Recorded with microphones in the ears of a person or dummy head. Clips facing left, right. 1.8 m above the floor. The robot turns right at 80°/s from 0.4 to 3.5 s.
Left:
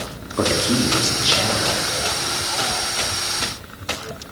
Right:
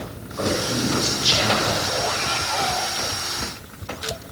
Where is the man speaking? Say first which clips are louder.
Left 4 dB; 105° left, 3.5 m; by 1.6 s 155° right, 3.5 m.